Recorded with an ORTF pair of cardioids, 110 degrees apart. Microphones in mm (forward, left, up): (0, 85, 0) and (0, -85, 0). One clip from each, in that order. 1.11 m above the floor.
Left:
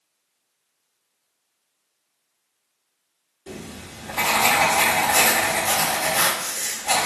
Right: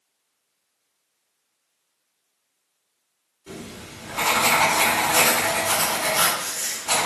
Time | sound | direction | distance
3.5 | writing | 40° left | 1.7 m